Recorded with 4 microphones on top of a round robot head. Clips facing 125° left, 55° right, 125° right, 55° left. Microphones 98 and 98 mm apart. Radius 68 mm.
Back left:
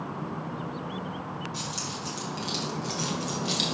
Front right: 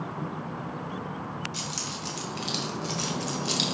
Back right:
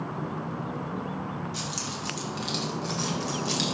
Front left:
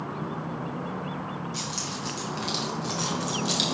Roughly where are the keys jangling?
Ahead right.